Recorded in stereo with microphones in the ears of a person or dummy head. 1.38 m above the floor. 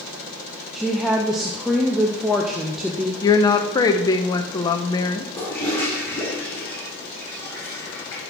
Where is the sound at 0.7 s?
5° right (ahead or behind), 0.6 m.